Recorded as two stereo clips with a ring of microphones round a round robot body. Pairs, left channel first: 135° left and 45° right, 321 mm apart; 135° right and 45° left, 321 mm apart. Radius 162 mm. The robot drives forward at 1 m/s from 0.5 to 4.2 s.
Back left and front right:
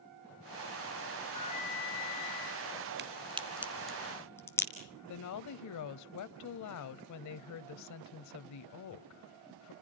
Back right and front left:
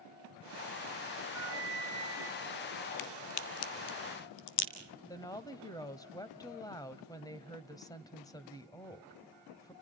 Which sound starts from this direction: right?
A crack, at 3.0 s.